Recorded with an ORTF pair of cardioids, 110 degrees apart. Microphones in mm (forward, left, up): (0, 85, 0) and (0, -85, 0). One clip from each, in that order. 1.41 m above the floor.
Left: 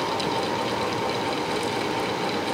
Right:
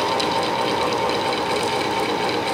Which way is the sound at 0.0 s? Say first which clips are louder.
Right 5 dB; 30° right.